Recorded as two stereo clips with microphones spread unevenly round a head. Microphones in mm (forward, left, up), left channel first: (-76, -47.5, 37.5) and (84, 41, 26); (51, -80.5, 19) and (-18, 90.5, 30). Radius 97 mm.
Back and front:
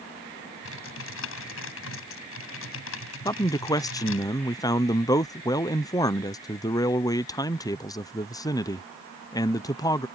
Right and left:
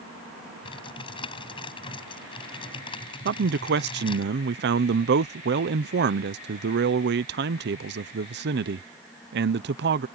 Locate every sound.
0.7 s typing on a keyboard: 135° right
3.2 s a man speaking: 140° left